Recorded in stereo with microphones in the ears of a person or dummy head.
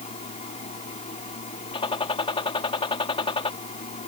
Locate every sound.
0.0 s a fan: 30° left (ahead or behind)
1.7 s a gunshot: 20° left (ahead or behind)